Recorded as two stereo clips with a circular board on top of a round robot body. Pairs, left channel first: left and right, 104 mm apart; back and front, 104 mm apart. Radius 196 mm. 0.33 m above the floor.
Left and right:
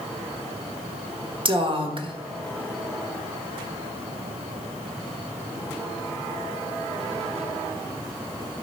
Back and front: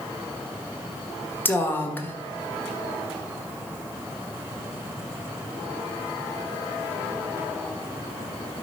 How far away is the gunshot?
I don't hear a gunshot.